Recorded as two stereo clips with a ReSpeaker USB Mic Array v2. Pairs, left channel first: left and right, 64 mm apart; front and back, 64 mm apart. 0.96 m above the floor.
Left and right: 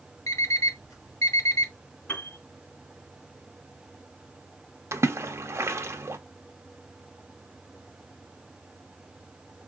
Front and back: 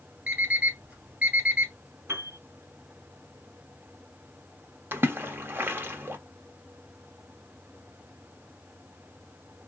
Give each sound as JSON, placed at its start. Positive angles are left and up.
{"t": 0.3, "sound": "an alarm clock", "azimuth_deg": 115, "distance_m": 3.0}
{"t": 2.1, "sound": "a piano", "azimuth_deg": 140, "distance_m": 2.5}
{"t": 4.9, "sound": "a splash", "azimuth_deg": -130, "distance_m": 0.7}